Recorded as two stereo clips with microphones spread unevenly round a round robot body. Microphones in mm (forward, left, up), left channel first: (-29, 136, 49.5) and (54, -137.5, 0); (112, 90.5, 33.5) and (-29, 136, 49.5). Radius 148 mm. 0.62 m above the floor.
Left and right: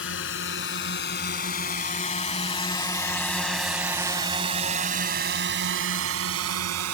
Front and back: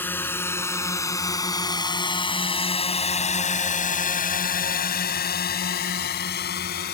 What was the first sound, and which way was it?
A drone, 60° left.